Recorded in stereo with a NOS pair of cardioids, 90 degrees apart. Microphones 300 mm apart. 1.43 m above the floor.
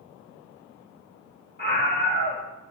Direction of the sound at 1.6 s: 30° left.